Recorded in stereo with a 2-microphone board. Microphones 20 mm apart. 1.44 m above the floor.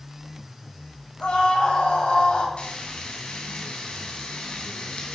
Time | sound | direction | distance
1.2 | a scream | 75° left (ahead or behind) | 9 m
2.6 | frying | 80° left | 5 m